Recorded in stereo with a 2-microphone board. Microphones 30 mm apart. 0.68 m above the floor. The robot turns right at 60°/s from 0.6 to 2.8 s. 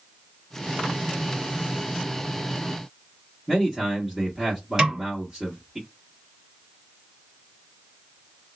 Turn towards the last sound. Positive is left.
turn(degrees=-25)  # may be behind; listen again after turning